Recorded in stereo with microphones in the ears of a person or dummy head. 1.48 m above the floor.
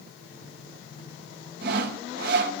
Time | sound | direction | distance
1.6 | sawing | 60° right (ahead or behind) | 1.0 m